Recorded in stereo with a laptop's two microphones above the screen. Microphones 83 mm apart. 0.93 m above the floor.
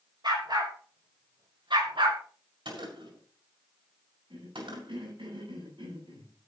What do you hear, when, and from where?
0.2 s a dog barking: 60° right (ahead or behind), 4.5 m; by 2.2 s 80° right, 2.5 m
2.6 s a gunshot: 80° right, 6 m
4.3 s a cough: 80° right, 8.5 m